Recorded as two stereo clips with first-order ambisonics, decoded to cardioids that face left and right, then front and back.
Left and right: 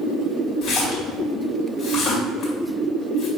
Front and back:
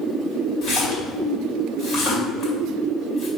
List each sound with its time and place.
0.6 s a splash: 45° left, 1.8 m